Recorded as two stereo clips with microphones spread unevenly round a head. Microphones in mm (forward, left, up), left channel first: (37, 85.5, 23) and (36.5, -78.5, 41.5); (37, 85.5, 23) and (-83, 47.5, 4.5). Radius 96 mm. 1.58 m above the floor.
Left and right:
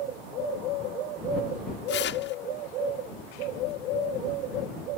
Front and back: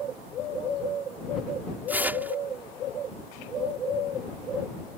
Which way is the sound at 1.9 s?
120° left.